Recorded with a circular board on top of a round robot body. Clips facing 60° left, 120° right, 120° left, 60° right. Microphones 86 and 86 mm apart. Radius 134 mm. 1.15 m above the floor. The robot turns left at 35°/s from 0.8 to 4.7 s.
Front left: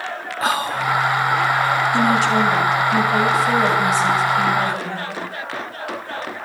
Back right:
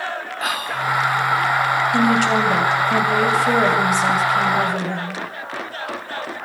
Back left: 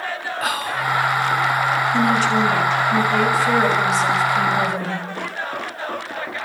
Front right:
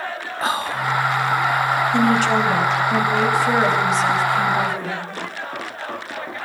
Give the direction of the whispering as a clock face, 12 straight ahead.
12 o'clock.